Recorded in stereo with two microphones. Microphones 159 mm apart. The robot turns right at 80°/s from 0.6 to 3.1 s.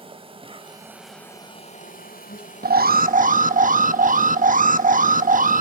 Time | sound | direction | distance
0.0 | an insect | 40° right | 1.7 m
2.6 | an alarm | 100° right | 0.7 m